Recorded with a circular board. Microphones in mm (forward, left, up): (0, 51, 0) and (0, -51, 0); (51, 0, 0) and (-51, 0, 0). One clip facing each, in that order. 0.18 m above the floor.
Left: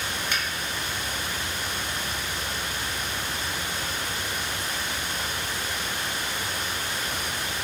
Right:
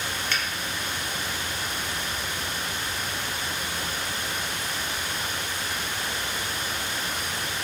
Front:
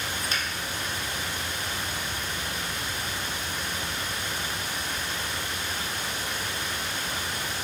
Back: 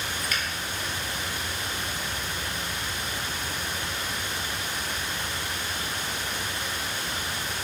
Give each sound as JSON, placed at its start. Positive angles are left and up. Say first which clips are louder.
{"t": 0.3, "sound": "a finger snap", "louder": "even, even", "azimuth_deg": 30, "distance_m": 1.0}